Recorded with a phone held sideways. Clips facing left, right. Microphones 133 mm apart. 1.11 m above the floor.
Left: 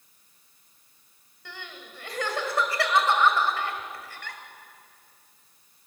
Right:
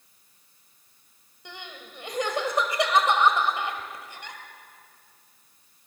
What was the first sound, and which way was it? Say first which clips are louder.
Crying: right 1 dB; 20° right (ahead or behind).